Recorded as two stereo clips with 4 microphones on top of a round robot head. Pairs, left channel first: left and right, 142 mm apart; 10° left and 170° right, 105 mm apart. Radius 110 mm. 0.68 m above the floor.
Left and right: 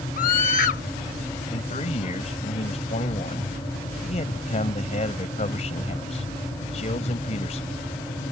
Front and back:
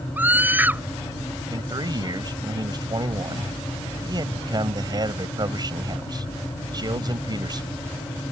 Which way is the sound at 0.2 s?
115° left.